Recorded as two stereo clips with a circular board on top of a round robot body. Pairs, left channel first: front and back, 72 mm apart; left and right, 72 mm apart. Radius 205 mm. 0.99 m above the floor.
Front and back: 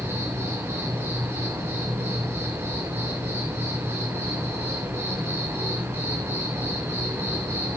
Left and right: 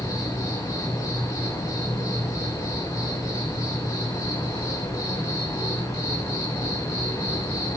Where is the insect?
125° left, 3 m.